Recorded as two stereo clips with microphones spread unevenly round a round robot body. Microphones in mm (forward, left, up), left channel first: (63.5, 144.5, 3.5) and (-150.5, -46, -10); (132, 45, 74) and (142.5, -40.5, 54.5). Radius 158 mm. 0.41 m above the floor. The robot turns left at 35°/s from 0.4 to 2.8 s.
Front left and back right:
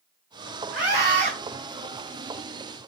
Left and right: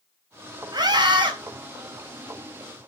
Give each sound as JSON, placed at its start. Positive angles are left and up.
{"t": 0.7, "sound": "a scream", "azimuth_deg": -70, "distance_m": 3.0}